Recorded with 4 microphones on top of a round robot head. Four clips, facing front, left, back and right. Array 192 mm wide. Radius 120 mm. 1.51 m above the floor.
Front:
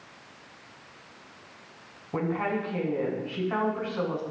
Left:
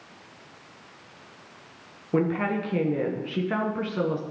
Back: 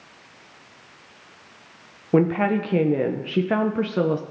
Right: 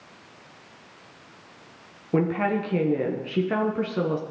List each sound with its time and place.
2.1 s a woman speaking: 170° right, 0.7 m